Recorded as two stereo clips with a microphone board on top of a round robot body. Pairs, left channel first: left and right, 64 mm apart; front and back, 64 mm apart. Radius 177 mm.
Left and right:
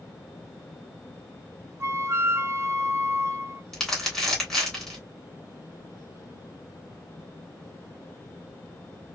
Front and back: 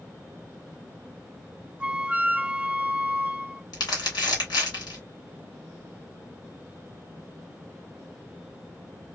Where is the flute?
115° right, 0.7 m.